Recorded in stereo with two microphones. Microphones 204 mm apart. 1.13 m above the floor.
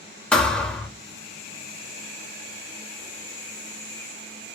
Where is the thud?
5° left (ahead or behind), 0.6 m.